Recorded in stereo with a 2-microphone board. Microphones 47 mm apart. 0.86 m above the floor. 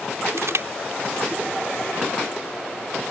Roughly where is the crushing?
Right.